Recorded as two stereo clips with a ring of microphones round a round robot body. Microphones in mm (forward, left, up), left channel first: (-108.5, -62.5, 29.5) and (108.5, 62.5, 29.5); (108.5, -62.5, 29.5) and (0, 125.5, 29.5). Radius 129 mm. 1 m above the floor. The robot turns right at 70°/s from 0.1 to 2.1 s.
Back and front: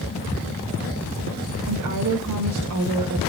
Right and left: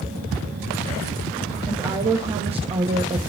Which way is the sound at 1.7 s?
25° left.